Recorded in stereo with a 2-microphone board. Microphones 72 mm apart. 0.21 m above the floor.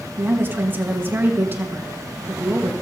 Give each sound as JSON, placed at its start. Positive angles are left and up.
{"t": 0.2, "sound": "a woman speaking", "side_deg": -30, "distance_m": 2.5}